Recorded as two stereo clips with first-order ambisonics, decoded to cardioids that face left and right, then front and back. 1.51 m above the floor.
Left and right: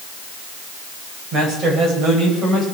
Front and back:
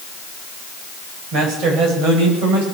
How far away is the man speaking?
About 6.5 m.